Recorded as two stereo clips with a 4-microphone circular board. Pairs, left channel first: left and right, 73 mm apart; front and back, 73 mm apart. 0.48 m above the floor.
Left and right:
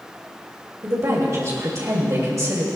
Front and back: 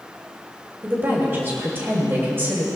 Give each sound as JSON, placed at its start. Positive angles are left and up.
{"t": 0.8, "sound": "a woman speaking", "azimuth_deg": -125, "distance_m": 2.5}